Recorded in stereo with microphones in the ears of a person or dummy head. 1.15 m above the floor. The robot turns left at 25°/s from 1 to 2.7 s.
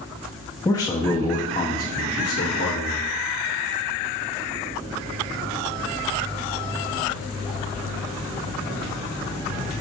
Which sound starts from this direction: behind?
A man speaking, at 0.7 s.